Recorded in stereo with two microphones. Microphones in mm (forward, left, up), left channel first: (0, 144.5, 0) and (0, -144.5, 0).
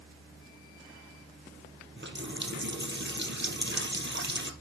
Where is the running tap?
40° right (ahead or behind), 2 m.